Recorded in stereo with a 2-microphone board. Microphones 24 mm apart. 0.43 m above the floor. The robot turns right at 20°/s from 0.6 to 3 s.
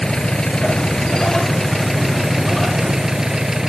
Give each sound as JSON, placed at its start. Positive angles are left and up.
{"t": 0.0, "sound": "an engine running", "azimuth_deg": 150}